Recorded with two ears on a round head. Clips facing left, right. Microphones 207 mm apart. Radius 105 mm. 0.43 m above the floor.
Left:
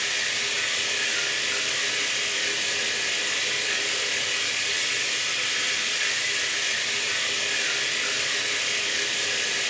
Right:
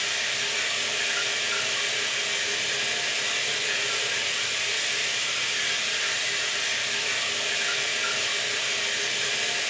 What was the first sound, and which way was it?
Running water, 35° left (ahead or behind).